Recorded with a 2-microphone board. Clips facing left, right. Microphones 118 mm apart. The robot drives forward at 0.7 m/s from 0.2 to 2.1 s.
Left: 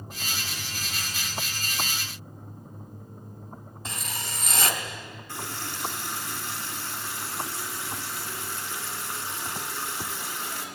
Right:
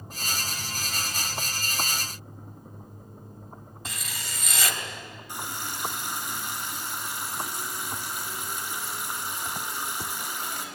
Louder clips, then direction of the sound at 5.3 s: Right 1 dB; 15° right (ahead or behind).